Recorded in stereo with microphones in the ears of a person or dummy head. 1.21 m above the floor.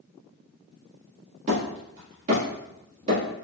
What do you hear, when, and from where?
1.5 s hammering: 40° right (ahead or behind), 1.8 m